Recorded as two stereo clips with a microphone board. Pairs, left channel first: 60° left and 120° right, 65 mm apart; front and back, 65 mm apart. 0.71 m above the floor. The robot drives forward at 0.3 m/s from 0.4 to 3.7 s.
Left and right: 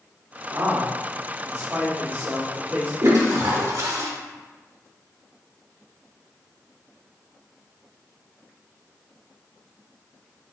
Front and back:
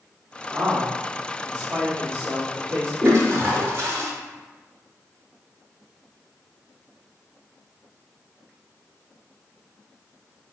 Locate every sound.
0.5 s a man speaking: 155° right, 1.3 m; by 2.9 s 165° right, 1.9 m
3.0 s a toilet flushing: 140° right, 1.0 m; by 4.1 s 145° right, 1.2 m